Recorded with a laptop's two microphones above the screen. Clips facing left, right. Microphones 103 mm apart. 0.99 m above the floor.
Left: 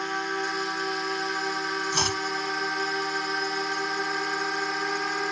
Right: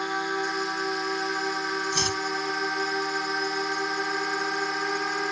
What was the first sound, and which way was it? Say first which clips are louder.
A drone: right 1 dB; 10° right (ahead or behind).